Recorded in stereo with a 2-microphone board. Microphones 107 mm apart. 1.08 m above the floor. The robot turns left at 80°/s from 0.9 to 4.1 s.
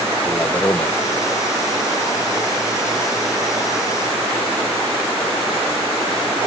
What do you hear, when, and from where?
0.2 s a man speaking: 25° left (ahead or behind); by 1.0 s 20° left (ahead or behind)